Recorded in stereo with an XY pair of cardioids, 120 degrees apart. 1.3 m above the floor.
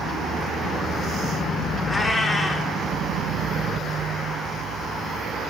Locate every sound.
1.9 s a cat meowing: 20° left, 6.5 m